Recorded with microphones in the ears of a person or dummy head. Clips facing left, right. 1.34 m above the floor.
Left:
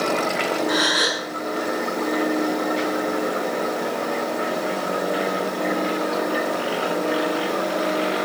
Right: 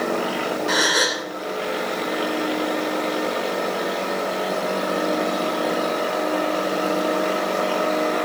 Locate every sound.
0.7 s a gasp: 55° right (ahead or behind), 1.9 m